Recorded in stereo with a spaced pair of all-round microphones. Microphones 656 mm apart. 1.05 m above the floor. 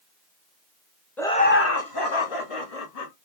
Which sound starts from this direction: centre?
Laughter, at 1.2 s.